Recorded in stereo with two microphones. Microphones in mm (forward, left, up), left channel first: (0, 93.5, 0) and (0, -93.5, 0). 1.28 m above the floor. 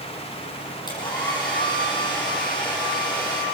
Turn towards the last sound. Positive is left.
turn(degrees=25)  # may be behind; listen again after turning